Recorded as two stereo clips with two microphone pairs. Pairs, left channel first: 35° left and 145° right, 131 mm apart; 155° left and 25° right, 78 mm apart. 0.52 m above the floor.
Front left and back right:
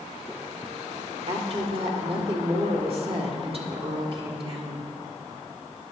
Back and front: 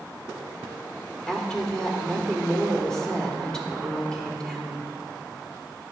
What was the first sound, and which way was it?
A woman speaking, 130° right.